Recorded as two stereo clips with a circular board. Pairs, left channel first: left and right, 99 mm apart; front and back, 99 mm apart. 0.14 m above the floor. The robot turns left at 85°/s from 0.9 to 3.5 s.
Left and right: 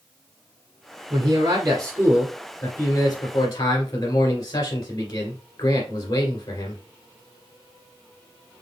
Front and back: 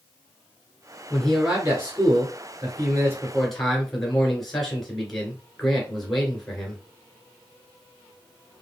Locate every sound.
1.1 s a man speaking: 70° right, 2.5 m; by 6.8 s 90° left, 2.5 m